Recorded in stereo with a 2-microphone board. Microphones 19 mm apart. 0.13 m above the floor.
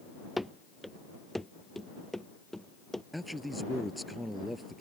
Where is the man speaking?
Centre (ahead or behind).